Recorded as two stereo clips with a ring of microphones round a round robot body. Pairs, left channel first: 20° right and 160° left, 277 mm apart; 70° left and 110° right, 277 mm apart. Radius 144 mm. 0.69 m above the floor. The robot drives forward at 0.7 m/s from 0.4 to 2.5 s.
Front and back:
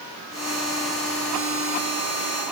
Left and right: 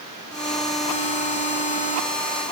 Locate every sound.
Only background noise.